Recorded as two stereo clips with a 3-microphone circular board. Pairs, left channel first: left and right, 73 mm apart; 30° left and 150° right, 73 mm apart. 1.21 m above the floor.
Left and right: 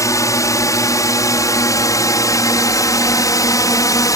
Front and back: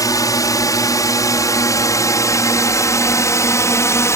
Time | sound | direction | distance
0.0 | a drone | 55° left | ?